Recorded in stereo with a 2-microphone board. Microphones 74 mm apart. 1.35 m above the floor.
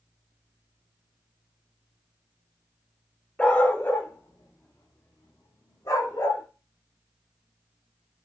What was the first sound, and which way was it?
A dog barking, 15° left (ahead or behind).